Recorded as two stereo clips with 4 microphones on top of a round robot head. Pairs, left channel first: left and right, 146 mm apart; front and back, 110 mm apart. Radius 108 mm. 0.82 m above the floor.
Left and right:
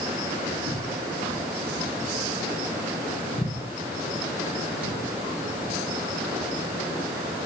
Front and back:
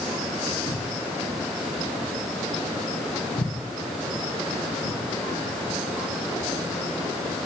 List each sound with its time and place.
0.5 s footsteps: 65° right, 2.5 m; by 5.0 s 55° left, 2.5 m